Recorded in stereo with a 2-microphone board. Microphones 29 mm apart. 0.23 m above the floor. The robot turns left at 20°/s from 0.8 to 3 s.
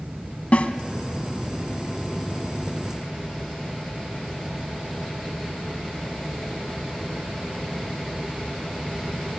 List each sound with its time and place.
0.5 s a snare drum: 50° left (ahead or behind), 1.0 m